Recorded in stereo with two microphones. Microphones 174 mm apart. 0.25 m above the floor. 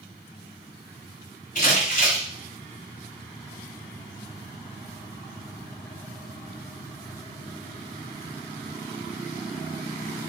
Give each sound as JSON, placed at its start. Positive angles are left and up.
{"t": 1.6, "sound": "crumpling", "side_deg": 50, "distance_m": 1.4}